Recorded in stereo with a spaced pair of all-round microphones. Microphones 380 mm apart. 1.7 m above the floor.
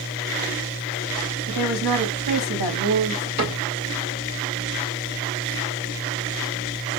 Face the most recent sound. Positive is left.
turn(degrees=-45)  # may be behind; listen again after turning